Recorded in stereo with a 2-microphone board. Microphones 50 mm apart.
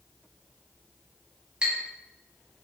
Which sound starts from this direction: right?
A clink, at 1.6 s.